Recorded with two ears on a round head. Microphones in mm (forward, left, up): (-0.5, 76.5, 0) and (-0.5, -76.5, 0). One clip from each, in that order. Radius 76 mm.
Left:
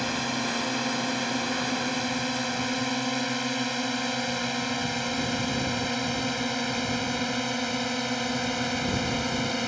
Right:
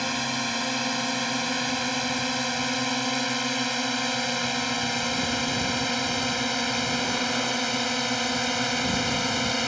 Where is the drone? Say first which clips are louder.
Right 1 dB; 15° right (ahead or behind); by 9.7 s 25° right (ahead or behind).